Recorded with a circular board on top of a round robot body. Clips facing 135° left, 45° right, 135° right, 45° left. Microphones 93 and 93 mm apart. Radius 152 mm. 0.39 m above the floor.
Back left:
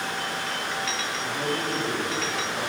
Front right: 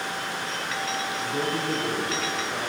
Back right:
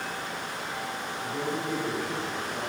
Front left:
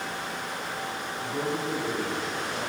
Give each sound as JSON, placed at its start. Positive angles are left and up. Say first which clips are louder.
{"t": 1.2, "sound": "a man speaking", "louder": "even, front left 2 dB", "azimuth_deg": -30, "distance_m": 9.5}